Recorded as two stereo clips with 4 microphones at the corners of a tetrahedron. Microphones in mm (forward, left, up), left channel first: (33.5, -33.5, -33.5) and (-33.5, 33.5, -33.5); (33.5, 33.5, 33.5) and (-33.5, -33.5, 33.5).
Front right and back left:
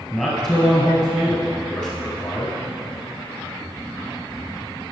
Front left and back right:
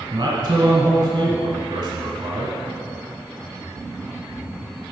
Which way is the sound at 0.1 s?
120° right.